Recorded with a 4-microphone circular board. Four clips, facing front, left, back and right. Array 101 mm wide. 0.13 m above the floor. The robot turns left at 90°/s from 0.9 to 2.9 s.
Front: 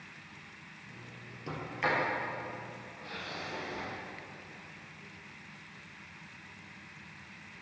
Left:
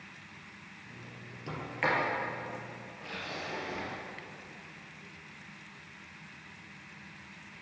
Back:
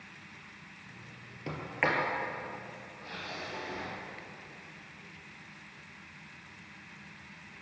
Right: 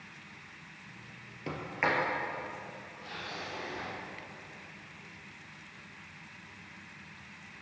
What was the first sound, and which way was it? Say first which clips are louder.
A sliding door: even, back 1 dB; 140° right.